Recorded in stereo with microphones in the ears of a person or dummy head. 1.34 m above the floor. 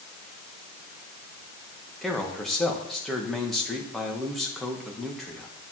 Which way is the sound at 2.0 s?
5° left (ahead or behind).